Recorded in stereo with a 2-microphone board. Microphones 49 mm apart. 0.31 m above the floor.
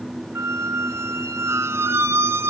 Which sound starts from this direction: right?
A squeak, at 0.3 s.